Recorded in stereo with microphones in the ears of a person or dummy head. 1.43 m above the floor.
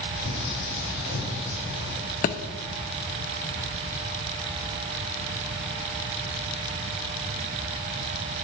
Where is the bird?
70° left (ahead or behind), 4.5 m.